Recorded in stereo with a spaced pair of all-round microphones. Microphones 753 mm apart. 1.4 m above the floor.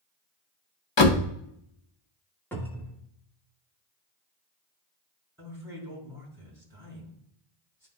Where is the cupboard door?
5° left (ahead or behind), 1.2 m.